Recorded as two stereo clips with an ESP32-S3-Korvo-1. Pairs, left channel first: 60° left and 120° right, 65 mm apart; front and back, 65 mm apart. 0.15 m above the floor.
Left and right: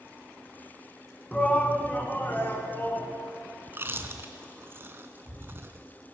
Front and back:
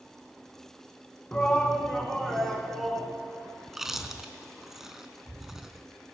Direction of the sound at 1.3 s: 20° left.